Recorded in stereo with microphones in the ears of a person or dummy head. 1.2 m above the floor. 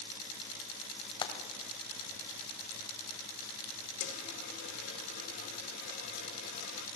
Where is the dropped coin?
55° left (ahead or behind), 1.8 m.